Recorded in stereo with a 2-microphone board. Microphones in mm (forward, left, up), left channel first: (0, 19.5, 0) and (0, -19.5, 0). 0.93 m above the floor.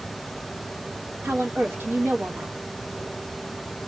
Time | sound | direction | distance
1.2 | a woman speaking | 75° right (ahead or behind) | 1.2 m